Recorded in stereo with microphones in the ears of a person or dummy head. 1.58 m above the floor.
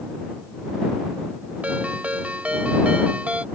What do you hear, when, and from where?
1.6 s a ringtone: 10° right (ahead or behind)